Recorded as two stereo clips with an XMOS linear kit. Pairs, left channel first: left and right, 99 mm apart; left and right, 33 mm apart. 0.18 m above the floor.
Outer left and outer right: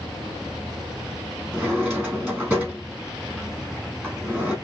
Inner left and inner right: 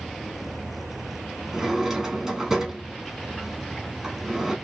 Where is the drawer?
20° right (ahead or behind), 2.5 m.